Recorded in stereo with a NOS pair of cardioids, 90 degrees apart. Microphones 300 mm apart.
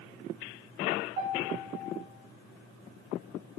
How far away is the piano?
About 1.7 m.